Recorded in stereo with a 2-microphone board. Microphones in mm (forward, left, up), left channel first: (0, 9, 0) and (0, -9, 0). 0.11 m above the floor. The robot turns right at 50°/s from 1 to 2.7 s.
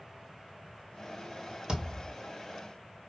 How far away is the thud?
About 1.6 m.